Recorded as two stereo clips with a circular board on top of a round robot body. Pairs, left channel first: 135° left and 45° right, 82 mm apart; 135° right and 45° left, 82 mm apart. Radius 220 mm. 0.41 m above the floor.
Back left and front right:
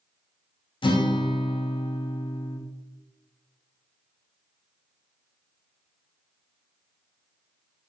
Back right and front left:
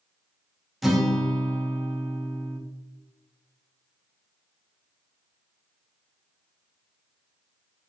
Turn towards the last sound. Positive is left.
turn(degrees=135)